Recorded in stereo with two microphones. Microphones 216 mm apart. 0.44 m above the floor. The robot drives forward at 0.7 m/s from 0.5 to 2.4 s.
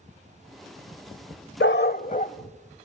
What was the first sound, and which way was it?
A dog barking, 60° left (ahead or behind).